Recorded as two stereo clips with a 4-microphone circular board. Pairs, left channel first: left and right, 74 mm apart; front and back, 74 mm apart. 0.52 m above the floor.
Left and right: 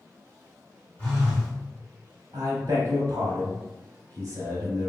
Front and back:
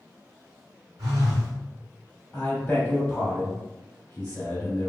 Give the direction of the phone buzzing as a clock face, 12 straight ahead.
7 o'clock.